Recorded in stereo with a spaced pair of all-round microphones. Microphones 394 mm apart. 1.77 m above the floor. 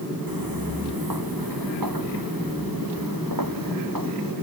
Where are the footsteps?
60° right (ahead or behind); by 4.3 s 55° right (ahead or behind).